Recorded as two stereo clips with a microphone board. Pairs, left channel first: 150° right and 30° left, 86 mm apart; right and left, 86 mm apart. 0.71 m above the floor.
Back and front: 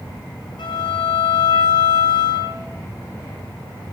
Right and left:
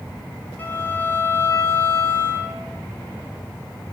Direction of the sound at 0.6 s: 160° right.